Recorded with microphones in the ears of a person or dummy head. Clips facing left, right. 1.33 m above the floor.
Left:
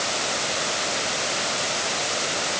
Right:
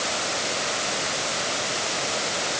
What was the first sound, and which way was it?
Only background noise.